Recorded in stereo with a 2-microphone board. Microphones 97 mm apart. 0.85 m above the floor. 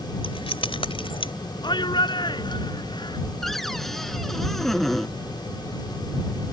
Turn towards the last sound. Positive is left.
turn(degrees=5)  # may be behind; listen again after turning